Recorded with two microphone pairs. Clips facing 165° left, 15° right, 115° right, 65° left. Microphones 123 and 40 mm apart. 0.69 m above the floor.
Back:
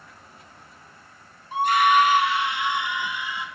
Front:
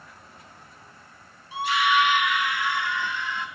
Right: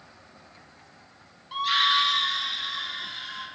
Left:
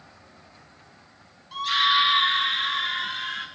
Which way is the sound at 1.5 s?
175° left.